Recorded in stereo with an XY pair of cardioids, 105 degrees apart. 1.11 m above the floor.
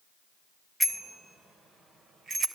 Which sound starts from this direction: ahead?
A bicycle bell, at 0.8 s.